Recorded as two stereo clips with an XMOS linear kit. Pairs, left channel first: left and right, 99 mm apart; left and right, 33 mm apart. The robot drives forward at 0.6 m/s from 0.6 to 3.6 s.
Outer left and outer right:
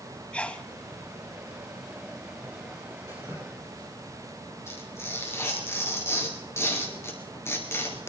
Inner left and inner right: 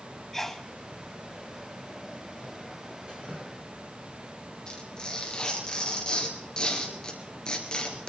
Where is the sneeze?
10° left (ahead or behind), 1.0 m.